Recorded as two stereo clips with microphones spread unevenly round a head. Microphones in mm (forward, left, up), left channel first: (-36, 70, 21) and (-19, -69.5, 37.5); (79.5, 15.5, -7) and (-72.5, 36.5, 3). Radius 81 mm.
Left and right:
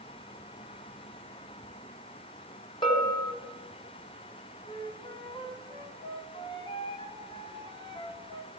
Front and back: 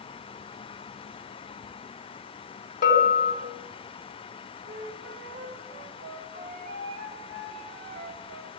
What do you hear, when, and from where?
2.8 s a bell: 30° left, 4 m
4.7 s a flute: 155° left, 4 m